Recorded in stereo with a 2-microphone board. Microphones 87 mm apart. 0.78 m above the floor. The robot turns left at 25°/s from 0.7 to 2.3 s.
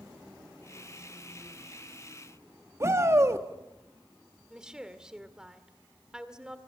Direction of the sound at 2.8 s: 30° right (ahead or behind).